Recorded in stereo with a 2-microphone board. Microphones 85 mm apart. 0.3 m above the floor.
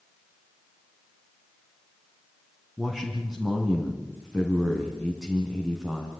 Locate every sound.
2.8 s a man speaking: 5° right (ahead or behind), 3 m